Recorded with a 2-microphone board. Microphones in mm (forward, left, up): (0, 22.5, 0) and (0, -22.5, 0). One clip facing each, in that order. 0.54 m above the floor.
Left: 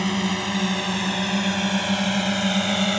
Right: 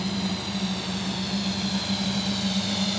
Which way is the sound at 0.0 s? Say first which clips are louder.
Left 5 dB; 55° left (ahead or behind).